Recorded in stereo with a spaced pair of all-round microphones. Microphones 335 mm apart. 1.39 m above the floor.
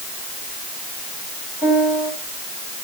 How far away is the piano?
About 9 m.